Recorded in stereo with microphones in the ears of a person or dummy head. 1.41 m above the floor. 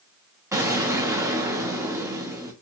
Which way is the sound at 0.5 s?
15° right (ahead or behind).